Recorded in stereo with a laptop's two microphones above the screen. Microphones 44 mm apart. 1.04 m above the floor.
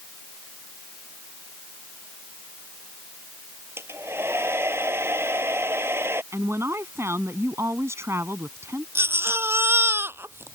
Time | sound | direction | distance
3.8 | a hair dryer | 65° right (ahead or behind) | ?
6.3 | a woman speaking | 80° right | ?
8.9 | a baby crying | 60° right (ahead or behind) | ?